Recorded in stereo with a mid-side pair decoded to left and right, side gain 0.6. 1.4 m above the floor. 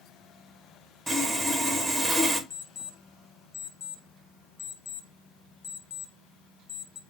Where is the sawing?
10° right, 2 m.